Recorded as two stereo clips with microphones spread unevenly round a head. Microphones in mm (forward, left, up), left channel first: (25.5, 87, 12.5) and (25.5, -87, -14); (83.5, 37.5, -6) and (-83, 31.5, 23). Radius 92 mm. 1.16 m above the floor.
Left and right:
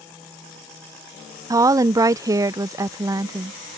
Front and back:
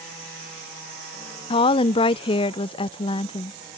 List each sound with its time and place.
1.5 s a woman speaking: 35° right